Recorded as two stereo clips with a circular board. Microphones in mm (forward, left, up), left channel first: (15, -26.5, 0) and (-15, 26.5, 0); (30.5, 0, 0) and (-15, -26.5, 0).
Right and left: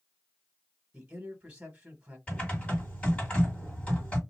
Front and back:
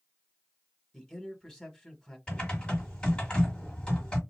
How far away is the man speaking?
About 1.0 m.